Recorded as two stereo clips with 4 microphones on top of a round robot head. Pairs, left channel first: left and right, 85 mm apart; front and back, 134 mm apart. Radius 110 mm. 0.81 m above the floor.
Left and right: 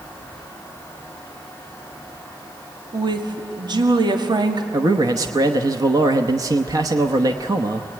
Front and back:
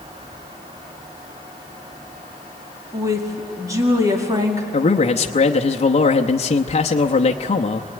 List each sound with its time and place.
2.9 s a woman speaking: 115° right, 2 m
4.7 s a man speaking: 45° right, 0.9 m